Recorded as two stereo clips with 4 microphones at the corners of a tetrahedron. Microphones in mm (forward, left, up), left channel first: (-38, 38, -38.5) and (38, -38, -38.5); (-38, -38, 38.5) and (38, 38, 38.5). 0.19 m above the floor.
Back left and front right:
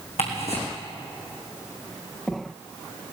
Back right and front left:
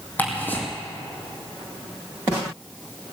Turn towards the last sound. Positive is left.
turn(degrees=150)